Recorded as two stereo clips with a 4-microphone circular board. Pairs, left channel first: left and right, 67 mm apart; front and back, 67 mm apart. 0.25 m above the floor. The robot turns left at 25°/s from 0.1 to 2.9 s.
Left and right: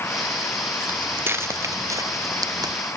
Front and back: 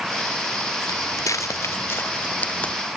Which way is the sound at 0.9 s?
25° right.